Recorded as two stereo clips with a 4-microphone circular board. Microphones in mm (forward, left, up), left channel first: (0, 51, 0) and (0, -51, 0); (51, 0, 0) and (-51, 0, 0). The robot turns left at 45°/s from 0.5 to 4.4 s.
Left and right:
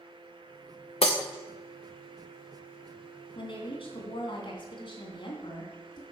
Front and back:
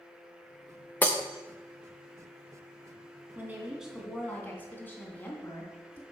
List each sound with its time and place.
1.0 s breaking glass: 70° left, 1.3 m; by 1.2 s 60° left, 1.3 m
3.4 s a woman speaking: 115° left, 2.5 m; by 6.0 s 70° left, 2.5 m